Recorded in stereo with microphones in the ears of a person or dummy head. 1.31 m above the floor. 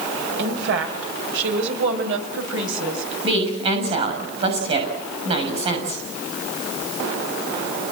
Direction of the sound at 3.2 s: 30° right (ahead or behind).